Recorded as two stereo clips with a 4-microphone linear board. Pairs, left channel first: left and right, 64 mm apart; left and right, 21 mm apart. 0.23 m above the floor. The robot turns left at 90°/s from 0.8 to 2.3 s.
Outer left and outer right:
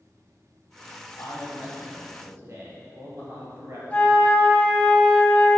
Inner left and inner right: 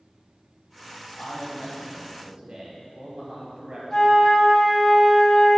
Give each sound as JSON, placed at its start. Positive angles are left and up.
{"t": 1.2, "sound": "a man speaking", "azimuth_deg": 60, "distance_m": 4.0}
{"t": 3.9, "sound": "a flute", "side_deg": 25, "distance_m": 1.4}